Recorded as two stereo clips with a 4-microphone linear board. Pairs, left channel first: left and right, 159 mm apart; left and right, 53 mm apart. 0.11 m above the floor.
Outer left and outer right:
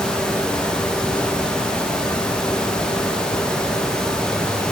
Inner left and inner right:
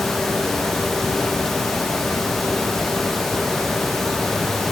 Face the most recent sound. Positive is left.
No sound to turn to.